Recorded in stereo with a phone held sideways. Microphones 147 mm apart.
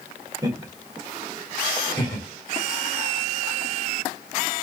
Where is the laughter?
25° right (ahead or behind), 1.5 m; by 2.3 s 35° left (ahead or behind), 1.7 m.